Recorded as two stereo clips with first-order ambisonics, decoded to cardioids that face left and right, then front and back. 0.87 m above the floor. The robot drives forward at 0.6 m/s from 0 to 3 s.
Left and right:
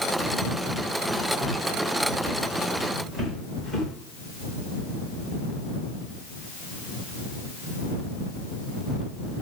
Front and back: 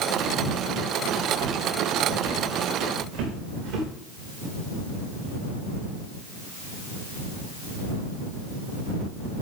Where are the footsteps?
175° left, 8 m; by 3.9 s 155° left, 7 m.